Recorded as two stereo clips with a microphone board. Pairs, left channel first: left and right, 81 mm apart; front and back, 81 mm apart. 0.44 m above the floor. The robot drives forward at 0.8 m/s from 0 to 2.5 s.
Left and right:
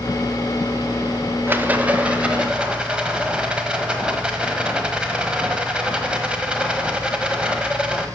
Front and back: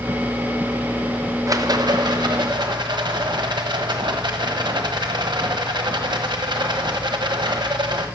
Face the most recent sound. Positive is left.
turn(degrees=-170)